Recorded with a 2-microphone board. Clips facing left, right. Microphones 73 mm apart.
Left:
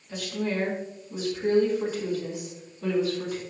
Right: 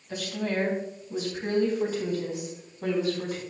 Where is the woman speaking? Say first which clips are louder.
Even; 75° right (ahead or behind), 3.5 m; by 3.4 s 45° right (ahead or behind), 4.5 m.